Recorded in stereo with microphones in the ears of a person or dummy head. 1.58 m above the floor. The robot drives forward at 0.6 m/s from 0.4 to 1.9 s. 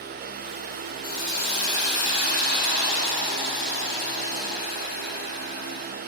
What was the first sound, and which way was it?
A hiss, 60° left (ahead or behind).